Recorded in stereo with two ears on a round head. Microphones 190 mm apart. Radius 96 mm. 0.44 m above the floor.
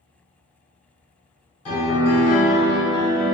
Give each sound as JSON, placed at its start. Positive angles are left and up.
{"t": 1.6, "sound": "a piano", "side_deg": 30, "distance_m": 1.3}